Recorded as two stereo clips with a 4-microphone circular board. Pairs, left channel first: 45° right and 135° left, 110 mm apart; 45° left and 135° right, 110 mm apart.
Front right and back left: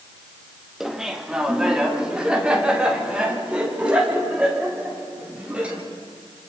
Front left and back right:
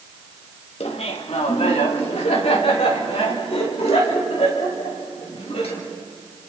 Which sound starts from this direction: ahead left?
Laughter, at 0.8 s.